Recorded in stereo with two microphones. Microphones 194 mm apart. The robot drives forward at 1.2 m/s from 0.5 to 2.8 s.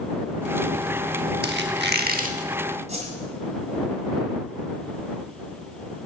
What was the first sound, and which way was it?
A squeak, 70° right (ahead or behind).